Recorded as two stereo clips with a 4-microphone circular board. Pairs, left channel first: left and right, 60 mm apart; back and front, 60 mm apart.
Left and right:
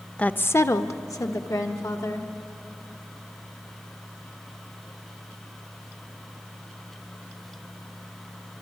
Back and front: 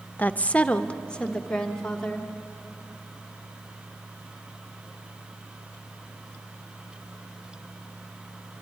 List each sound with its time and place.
0.2 s a woman speaking: 145° left, 0.7 m; by 2.3 s 100° left, 2.5 m